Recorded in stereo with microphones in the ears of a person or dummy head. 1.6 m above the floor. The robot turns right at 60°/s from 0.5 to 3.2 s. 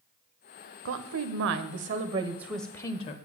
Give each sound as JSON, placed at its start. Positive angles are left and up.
{"t": 0.8, "sound": "a woman speaking", "azimuth_deg": -105, "distance_m": 0.9}